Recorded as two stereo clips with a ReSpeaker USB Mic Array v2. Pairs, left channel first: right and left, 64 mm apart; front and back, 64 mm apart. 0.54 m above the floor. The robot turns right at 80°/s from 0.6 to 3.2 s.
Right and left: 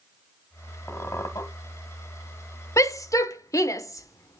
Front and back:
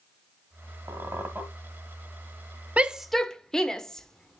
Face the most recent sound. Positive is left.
turn(degrees=-80)